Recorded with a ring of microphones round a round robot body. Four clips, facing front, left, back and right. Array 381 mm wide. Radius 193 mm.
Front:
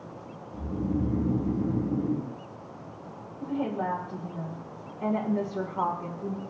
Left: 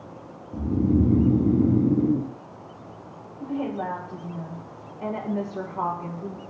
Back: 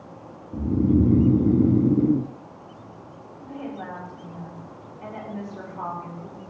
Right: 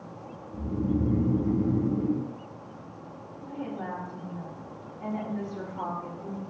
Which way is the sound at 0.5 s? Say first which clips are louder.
Left 6 dB, back 10 dB; 150° left.